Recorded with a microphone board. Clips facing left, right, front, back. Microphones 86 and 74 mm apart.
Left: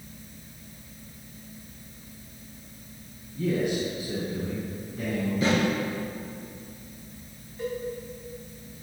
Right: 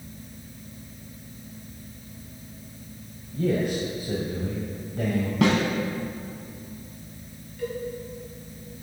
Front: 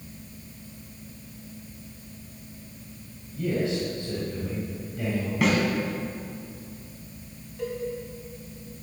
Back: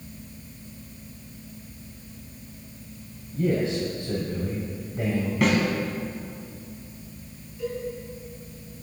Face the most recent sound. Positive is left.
turn(degrees=25)